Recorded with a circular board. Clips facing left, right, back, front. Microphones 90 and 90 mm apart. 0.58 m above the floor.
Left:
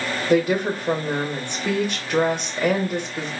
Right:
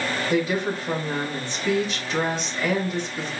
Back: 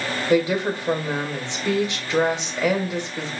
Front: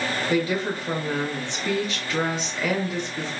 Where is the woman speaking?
115° left, 1.7 m.